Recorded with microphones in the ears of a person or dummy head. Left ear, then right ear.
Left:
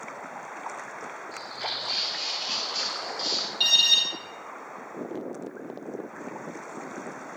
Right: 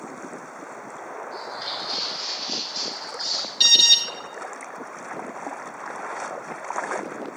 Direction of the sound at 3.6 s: 15° right (ahead or behind).